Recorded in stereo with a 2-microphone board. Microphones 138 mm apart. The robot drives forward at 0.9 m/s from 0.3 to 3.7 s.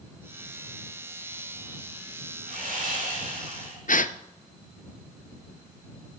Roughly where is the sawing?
Right.